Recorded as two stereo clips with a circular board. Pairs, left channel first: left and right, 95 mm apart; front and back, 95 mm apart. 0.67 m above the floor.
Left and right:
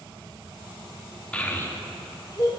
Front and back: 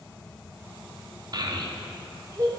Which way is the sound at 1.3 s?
165° left.